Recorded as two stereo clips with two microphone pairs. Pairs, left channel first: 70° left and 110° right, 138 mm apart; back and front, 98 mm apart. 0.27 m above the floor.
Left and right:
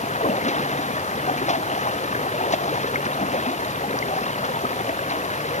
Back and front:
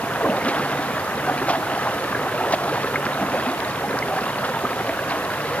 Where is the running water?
105° left.